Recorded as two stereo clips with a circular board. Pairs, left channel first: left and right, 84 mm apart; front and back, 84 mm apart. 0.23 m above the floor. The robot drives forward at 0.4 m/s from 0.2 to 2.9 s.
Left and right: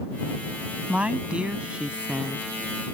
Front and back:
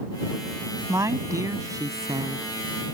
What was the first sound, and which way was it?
A woman speaking, 155° right.